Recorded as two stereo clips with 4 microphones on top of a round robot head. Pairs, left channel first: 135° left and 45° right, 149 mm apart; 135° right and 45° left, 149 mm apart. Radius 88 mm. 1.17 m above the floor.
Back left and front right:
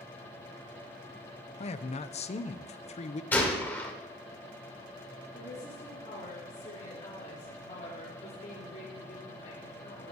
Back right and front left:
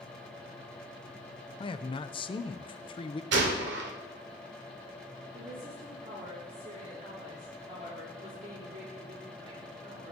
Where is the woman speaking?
95° left, 3.5 m.